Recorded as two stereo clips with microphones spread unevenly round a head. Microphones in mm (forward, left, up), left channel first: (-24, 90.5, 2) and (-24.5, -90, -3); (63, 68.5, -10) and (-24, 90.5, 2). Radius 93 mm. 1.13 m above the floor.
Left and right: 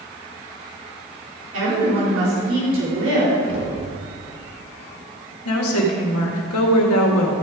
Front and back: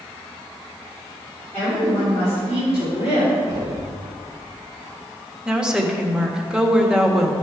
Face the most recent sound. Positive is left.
turn(degrees=85)